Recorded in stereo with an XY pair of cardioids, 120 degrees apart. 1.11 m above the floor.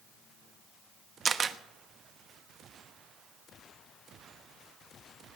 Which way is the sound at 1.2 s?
35° right.